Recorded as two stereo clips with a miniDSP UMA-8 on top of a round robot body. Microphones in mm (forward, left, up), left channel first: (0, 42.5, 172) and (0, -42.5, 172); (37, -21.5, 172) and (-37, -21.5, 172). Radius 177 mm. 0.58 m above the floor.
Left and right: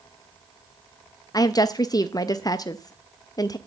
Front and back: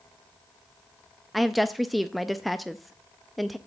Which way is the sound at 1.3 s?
90° left.